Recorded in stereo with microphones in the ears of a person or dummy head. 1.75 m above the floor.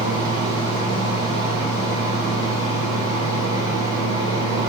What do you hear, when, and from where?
0.0 s a fan: 20° left (ahead or behind), 0.8 m